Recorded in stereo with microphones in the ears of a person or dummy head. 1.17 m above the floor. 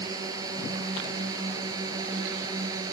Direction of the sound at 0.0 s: 20° right (ahead or behind).